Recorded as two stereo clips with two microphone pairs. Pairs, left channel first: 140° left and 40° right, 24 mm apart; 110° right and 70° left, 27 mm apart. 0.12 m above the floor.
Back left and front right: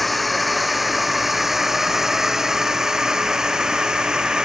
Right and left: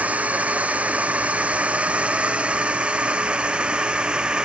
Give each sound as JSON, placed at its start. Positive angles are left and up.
{"t": 0.0, "sound": "a drone", "azimuth_deg": 55}